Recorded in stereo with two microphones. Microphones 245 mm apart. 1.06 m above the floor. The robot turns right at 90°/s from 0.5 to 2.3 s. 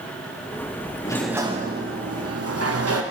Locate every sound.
1.1 s a sliding door: 160° left, 0.9 m; by 3.0 s 85° right, 0.9 m